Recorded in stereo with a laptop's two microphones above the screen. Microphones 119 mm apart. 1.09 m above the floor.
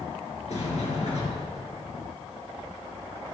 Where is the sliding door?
70° left (ahead or behind), 3 m.